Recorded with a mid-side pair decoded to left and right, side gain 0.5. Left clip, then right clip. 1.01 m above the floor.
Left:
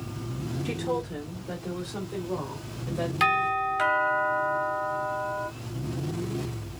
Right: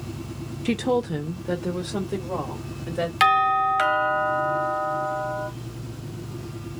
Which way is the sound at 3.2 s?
55° right.